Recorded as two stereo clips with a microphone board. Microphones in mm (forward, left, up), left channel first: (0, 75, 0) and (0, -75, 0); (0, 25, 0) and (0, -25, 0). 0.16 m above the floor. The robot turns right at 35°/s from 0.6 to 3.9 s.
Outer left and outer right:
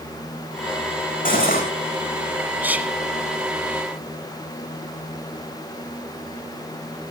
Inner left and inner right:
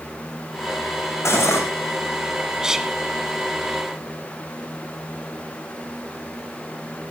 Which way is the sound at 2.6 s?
10° right (ahead or behind).